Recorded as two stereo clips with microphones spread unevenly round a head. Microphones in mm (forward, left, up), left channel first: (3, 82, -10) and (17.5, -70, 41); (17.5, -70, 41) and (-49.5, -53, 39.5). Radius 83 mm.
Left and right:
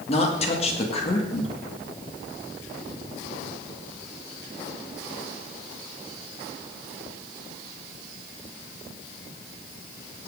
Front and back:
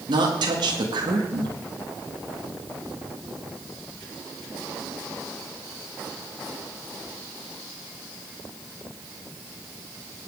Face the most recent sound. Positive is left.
turn(degrees=145)